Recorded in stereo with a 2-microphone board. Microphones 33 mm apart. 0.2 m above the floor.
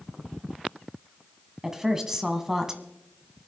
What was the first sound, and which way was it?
A woman speaking, 15° right (ahead or behind).